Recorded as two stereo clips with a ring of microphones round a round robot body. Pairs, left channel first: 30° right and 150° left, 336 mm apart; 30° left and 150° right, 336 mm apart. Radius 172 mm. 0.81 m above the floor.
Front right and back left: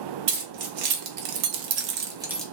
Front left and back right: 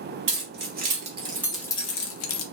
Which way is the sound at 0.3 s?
155° left.